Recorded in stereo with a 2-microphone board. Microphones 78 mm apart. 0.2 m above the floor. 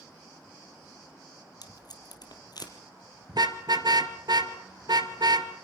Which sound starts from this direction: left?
Tape being pulled, at 1.6 s.